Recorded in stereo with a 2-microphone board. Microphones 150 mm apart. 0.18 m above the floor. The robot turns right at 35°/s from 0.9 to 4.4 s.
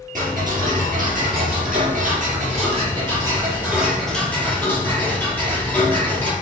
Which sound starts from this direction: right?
Ticking, at 0.1 s.